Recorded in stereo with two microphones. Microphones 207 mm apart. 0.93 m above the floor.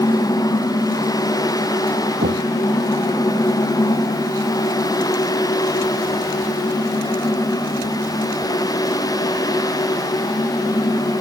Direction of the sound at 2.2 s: 55° right (ahead or behind).